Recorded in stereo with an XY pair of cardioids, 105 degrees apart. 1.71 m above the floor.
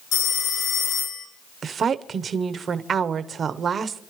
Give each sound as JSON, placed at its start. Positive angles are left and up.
{"t": 0.1, "sound": "a phone ringing", "azimuth_deg": 65, "distance_m": 4.5}
{"t": 1.6, "sound": "a woman speaking", "azimuth_deg": -45, "distance_m": 1.0}